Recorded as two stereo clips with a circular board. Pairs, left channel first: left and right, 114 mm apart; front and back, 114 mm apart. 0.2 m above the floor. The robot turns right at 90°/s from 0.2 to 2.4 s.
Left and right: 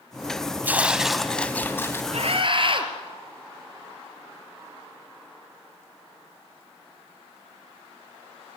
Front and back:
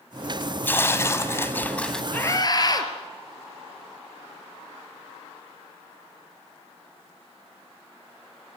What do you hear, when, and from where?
0.6 s tearing paper: 45° right, 1.5 m; by 2.0 s 80° left, 1.5 m
2.1 s a scream: 80° right, 4 m; by 2.9 s 50° right, 4 m